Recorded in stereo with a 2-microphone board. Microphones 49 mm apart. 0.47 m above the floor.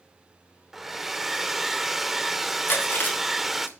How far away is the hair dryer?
About 0.7 m.